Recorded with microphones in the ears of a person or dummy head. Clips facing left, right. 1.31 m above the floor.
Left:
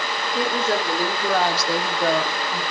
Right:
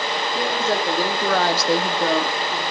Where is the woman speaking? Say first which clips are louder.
Left 1 dB; centre (ahead or behind), 1.2 m; by 2.6 s 55° right (ahead or behind), 1.3 m.